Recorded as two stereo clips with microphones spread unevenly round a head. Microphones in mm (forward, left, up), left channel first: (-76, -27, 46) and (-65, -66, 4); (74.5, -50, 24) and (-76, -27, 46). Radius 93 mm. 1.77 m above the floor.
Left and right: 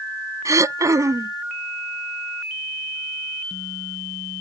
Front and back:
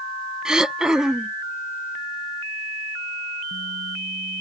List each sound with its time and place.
0.5 s throat clearing: 105° right